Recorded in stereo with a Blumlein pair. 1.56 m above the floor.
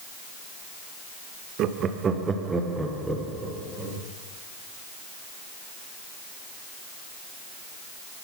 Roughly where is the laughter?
Ahead right.